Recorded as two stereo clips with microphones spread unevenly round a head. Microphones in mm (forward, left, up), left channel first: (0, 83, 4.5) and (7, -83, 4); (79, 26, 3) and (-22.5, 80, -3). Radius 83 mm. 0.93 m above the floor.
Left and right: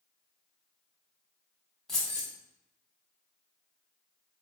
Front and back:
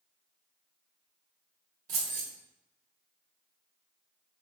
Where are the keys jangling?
Straight behind, 1.2 m.